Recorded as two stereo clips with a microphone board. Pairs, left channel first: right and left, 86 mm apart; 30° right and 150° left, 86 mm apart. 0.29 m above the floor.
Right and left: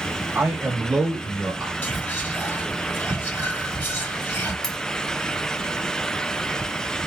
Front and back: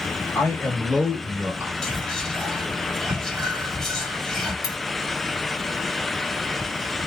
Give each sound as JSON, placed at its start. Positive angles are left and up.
{"t": 0.3, "sound": "a man speaking", "azimuth_deg": 15, "distance_m": 1.8}
{"t": 1.8, "sound": "whispering", "azimuth_deg": -110, "distance_m": 0.9}
{"t": 4.6, "sound": "cutlery clinking", "azimuth_deg": -5, "distance_m": 1.0}